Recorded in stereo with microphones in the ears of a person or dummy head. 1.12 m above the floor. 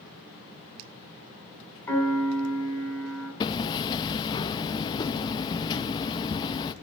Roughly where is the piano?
Centre.